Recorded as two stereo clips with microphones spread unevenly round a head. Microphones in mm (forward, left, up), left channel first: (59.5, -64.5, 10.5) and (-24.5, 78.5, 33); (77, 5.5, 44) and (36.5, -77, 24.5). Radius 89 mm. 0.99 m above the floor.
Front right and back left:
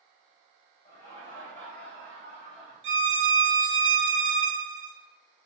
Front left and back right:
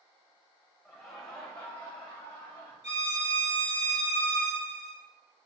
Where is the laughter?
Straight ahead, 0.9 m; by 2.7 s 25° left, 2.5 m.